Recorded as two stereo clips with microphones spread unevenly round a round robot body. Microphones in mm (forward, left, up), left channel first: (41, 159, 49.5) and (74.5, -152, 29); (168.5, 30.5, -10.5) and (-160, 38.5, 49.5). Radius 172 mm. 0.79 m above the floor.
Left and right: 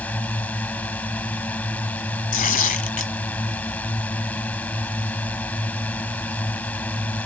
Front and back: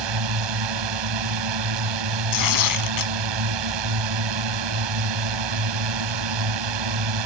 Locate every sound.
0.0 s a drone: straight behind
2.3 s tearing paper: 35° left